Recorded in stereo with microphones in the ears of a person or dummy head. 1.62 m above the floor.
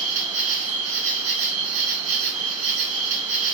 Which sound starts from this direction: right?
An insect, at 0.0 s.